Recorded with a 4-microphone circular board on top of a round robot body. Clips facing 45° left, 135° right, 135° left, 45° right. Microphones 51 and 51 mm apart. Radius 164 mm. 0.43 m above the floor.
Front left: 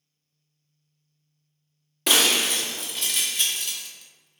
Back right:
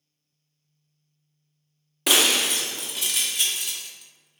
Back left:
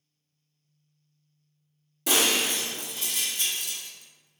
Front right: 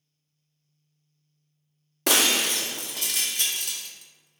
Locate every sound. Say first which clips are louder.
2.1 s breaking glass: even, front right 2 dB; 50° right, 0.6 m